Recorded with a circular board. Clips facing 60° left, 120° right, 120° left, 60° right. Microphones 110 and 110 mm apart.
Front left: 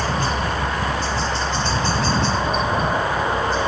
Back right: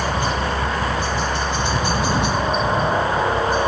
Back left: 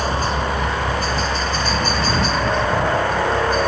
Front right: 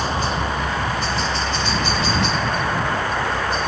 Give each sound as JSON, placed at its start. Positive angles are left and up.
{"t": 0.0, "sound": "a helicopter", "azimuth_deg": 165}